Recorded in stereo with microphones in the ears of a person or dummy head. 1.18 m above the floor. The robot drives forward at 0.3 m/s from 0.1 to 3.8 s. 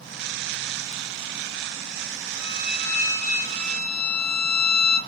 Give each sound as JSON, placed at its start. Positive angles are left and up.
{"t": 2.4, "sound": "a violin", "side_deg": 40, "distance_m": 1.9}